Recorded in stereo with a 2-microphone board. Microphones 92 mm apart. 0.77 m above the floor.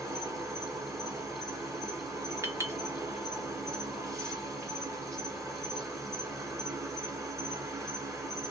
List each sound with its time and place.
0.0 s an insect: 35° right (ahead or behind), 1.1 m
2.4 s a clink: 30° right (ahead or behind), 0.7 m